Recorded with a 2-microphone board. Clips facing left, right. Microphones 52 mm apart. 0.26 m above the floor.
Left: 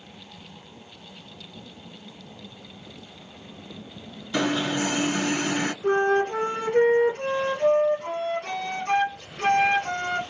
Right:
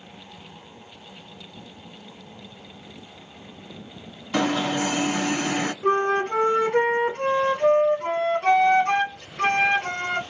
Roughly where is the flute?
Right.